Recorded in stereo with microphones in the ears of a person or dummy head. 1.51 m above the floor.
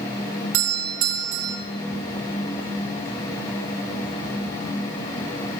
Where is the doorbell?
80° right, 1.7 m.